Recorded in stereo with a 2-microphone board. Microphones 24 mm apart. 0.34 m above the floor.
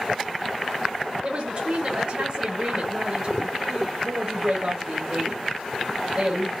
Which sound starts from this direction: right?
A woman speaking, at 1.2 s.